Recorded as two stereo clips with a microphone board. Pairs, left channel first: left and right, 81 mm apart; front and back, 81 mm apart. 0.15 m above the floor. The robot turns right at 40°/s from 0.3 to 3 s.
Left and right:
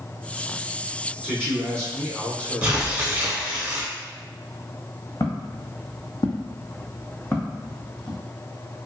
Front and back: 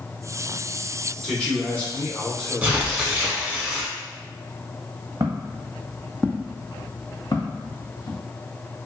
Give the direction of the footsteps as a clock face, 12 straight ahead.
8 o'clock.